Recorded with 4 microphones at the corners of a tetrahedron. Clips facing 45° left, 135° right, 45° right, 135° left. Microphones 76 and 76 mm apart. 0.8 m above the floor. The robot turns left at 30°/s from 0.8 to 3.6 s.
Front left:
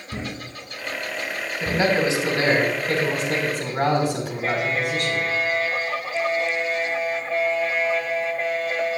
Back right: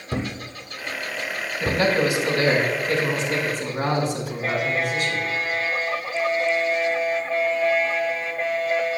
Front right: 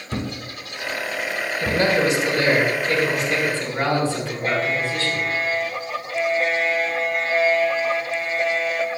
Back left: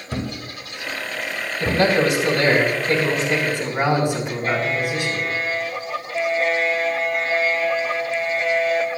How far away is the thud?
About 1.2 m.